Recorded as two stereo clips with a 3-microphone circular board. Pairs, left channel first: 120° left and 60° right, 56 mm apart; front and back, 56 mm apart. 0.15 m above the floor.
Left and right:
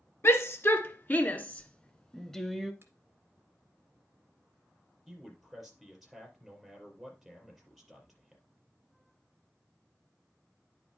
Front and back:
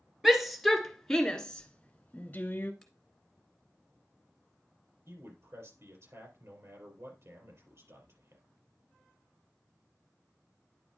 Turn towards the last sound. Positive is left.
turn(degrees=-150)